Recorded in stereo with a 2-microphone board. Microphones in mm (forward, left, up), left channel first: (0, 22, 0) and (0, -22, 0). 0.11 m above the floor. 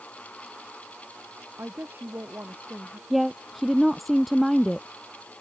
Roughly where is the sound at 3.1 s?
Centre.